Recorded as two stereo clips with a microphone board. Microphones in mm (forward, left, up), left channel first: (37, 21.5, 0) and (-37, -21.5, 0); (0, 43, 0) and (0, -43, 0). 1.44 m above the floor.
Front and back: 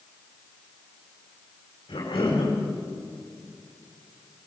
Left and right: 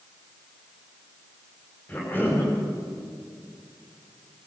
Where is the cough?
20° left, 4 m.